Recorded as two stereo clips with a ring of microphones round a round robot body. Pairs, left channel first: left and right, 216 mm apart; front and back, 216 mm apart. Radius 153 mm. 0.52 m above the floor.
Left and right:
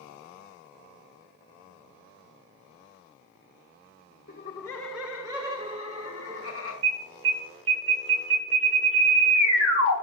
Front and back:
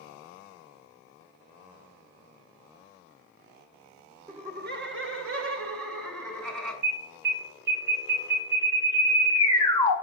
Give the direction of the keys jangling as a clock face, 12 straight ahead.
No keys jangling in this recording.